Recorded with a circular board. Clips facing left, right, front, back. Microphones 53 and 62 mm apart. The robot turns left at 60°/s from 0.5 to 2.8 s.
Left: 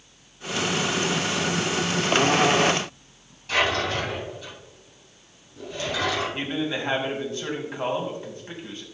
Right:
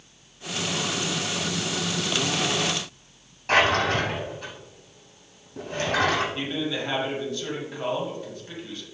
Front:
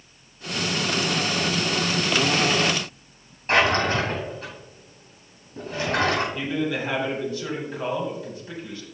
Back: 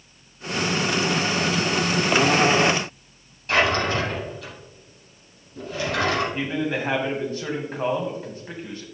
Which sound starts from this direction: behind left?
A man speaking, at 6.3 s.